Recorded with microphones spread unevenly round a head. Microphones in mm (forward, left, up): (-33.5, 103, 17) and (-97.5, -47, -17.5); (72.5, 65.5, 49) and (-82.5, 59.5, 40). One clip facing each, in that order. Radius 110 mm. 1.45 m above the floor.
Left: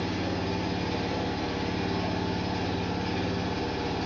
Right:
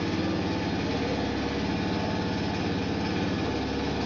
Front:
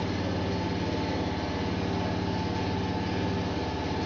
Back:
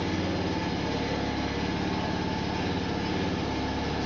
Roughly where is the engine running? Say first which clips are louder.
Right 3 dB, back 1 dB; behind right.